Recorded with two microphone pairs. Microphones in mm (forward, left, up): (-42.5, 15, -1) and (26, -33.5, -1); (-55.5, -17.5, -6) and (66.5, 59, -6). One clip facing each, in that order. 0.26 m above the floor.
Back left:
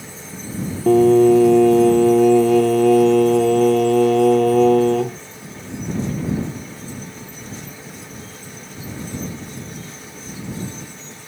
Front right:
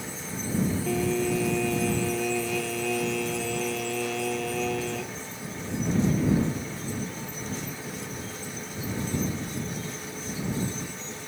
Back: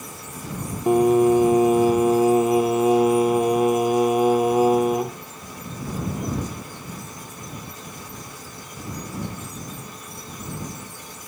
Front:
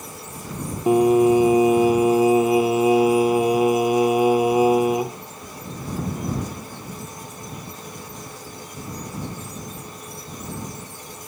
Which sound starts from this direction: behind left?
Singing, at 0.9 s.